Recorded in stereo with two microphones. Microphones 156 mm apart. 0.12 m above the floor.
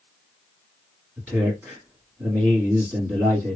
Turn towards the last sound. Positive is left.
turn(degrees=-10)  # may be behind; listen again after turning